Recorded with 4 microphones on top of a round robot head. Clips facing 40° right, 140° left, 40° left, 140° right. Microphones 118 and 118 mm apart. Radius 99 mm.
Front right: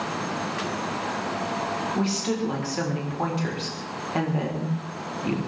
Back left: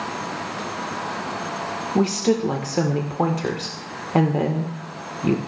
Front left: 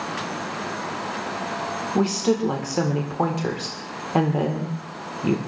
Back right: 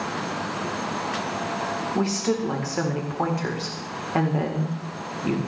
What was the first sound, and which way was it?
A woman speaking, 105° left.